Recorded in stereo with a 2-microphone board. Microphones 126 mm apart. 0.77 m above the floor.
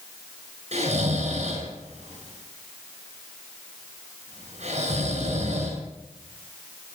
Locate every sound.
0.7 s snoring: 65° right (ahead or behind), 9.5 m